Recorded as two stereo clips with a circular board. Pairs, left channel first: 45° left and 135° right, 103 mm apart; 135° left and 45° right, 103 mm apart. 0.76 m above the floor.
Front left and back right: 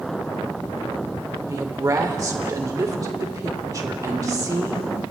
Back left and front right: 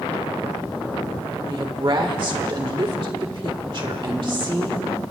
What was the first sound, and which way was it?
A woman speaking, 80° right.